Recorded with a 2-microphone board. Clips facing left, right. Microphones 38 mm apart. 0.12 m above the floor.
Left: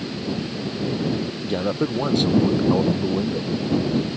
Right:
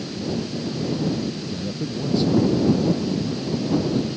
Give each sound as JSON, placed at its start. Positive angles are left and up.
{"t": 1.4, "sound": "a man speaking", "side_deg": 60}